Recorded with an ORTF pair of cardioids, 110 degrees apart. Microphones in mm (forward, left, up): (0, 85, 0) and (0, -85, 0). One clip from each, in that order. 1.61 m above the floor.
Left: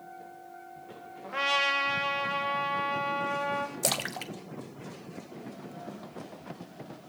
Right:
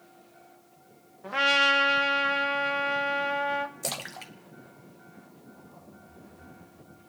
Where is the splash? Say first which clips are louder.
Left 4 dB; 25° left, 0.8 m.